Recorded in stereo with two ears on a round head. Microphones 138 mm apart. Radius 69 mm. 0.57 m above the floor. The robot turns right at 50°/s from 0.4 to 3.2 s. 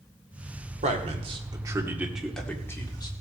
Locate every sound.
0.8 s a man speaking: 45° right (ahead or behind), 1.8 m; by 3.1 s 30° left (ahead or behind), 1.8 m